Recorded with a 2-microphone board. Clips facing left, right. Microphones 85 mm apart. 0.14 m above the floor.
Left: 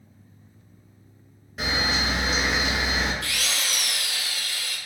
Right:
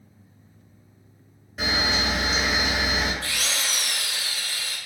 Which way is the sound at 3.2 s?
35° right (ahead or behind).